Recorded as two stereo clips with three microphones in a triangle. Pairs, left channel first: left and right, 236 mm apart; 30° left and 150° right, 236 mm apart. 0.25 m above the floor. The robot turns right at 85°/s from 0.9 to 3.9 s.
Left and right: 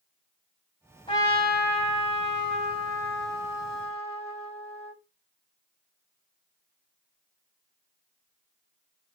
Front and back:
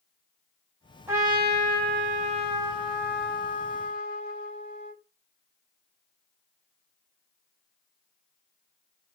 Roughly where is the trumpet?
Behind left.